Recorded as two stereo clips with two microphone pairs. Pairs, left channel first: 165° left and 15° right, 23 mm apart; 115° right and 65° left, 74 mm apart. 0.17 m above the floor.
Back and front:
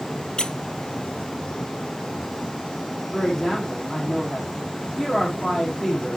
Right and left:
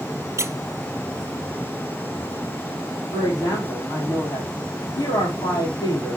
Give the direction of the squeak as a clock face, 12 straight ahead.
8 o'clock.